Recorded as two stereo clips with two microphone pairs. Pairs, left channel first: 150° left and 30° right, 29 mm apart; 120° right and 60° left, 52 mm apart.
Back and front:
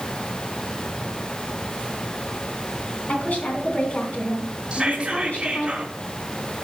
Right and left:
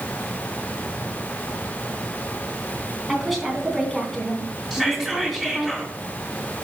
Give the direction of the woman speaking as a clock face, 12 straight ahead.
7 o'clock.